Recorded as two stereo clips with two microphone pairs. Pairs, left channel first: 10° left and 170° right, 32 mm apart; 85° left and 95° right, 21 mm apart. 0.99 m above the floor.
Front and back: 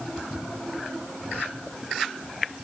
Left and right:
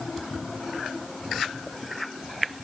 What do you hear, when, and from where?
Only background noise.